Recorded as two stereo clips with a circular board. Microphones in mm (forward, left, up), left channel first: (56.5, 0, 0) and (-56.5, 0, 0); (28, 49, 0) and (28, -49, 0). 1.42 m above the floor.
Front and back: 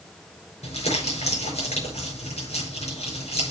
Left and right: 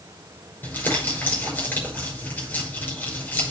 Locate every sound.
0.6 s crumpling: 20° left, 6 m